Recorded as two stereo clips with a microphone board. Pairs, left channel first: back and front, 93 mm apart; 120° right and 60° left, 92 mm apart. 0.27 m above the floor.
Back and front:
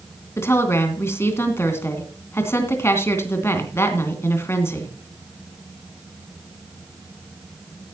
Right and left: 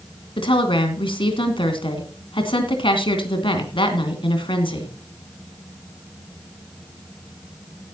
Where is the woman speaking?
120° right, 3 m.